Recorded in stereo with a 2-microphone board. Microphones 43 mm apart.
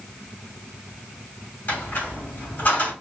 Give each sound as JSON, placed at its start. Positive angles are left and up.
{"t": 1.7, "sound": "a squeak", "side_deg": 50, "distance_m": 3.0}